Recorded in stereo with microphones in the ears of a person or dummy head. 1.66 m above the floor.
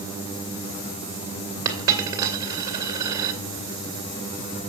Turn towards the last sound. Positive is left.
turn(degrees=-25)  # may be behind; listen again after turning